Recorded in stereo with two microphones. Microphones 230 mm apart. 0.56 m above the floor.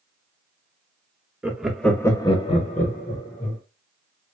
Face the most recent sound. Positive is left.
turn(degrees=35)  # may be behind; listen again after turning